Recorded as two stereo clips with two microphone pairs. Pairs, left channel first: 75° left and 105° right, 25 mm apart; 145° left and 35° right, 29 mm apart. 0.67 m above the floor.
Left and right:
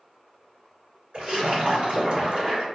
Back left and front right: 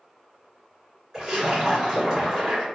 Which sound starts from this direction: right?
A splash, at 1.1 s.